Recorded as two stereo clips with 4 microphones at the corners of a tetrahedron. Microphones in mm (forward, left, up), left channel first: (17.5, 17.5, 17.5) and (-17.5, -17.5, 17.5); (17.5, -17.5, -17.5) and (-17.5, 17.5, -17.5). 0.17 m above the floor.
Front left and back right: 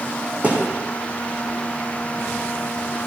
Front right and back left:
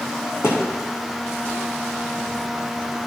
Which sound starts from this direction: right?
A thud, at 0.4 s.